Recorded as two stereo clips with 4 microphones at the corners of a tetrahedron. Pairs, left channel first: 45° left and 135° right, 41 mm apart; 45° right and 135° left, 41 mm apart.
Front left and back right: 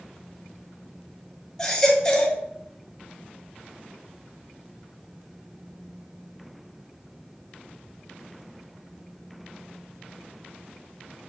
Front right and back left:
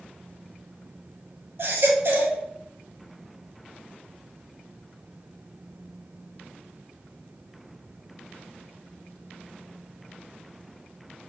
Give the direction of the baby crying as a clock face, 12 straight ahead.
8 o'clock.